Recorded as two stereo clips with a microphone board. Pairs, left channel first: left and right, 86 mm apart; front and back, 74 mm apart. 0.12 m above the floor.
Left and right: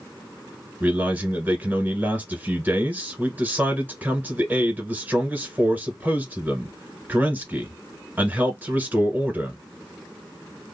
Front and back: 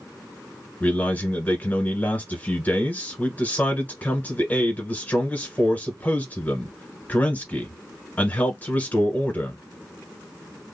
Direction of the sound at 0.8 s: 45° right.